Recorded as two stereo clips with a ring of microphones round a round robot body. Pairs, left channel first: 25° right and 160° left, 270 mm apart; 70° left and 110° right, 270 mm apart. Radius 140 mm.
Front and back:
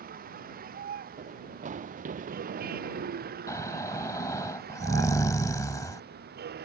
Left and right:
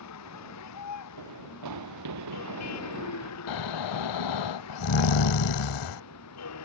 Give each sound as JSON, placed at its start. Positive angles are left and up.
{"t": 0.0, "sound": "a vehicle", "azimuth_deg": 95}
{"t": 1.2, "sound": "running footsteps", "azimuth_deg": -140}
{"t": 3.5, "sound": "snoring", "azimuth_deg": 55}